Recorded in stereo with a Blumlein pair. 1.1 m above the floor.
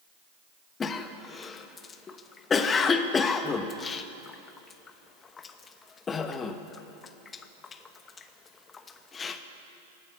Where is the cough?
20° left, 1.0 m.